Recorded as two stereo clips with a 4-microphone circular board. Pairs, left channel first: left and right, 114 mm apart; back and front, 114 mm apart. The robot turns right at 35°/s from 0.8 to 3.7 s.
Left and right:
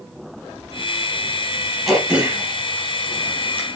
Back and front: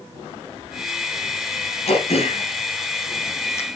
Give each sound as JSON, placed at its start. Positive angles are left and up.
{"t": 1.9, "sound": "throat clearing", "azimuth_deg": 180, "distance_m": 4.0}